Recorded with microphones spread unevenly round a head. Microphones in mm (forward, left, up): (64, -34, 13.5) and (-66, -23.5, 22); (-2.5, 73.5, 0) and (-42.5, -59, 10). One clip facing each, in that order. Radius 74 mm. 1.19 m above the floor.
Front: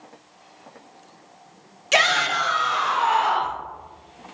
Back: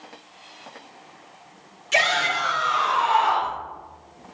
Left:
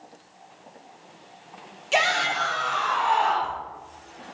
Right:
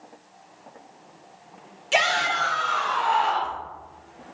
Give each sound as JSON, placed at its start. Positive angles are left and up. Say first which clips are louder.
{"t": 1.9, "sound": "a shout", "louder": "front 2 dB, even", "azimuth_deg": -15, "distance_m": 0.9}